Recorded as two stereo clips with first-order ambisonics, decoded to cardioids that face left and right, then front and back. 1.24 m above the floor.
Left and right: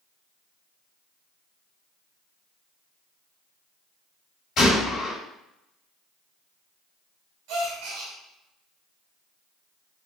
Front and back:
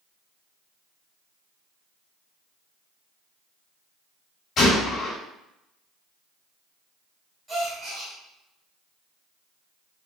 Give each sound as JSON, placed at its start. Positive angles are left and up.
{"t": 4.6, "sound": "a gunshot", "azimuth_deg": 50, "distance_m": 1.4}
{"t": 7.5, "sound": "a gasp", "azimuth_deg": -105, "distance_m": 1.3}